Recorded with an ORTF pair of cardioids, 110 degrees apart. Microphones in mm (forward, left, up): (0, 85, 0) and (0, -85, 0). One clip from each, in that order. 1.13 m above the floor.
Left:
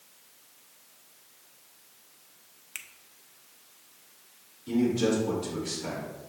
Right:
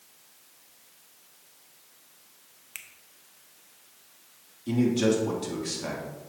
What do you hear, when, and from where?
2.8 s a finger snap: 5° left, 0.6 m
4.7 s a man speaking: 55° right, 3 m